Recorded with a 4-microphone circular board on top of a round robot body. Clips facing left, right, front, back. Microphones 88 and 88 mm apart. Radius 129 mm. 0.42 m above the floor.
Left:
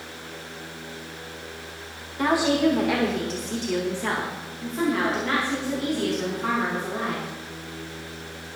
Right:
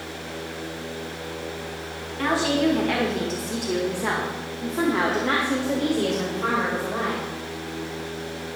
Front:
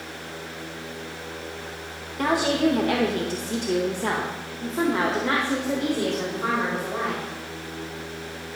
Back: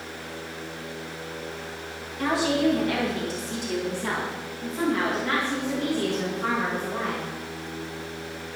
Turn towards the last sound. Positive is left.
turn(degrees=-75)